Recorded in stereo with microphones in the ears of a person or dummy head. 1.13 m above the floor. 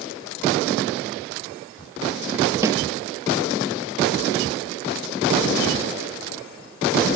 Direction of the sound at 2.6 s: 20° right (ahead or behind).